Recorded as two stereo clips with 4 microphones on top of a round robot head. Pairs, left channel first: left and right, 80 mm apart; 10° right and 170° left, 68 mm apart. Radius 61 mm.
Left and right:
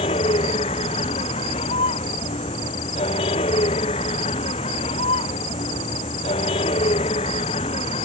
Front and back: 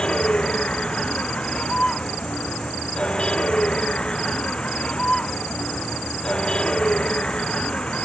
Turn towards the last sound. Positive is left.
turn(degrees=70)